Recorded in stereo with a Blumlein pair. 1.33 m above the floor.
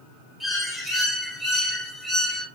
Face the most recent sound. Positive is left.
turn(degrees=0)